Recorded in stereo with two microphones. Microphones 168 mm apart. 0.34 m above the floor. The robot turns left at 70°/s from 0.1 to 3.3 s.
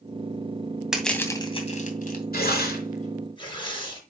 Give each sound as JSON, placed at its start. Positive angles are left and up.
{"t": 0.9, "sound": "crushing", "side_deg": -5, "distance_m": 2.5}
{"t": 2.3, "sound": "tearing paper", "side_deg": 75, "distance_m": 5.0}